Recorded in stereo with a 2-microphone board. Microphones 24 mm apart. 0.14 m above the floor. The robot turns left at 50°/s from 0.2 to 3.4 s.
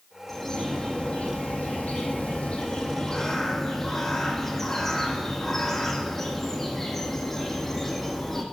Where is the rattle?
I don't hear a rattle.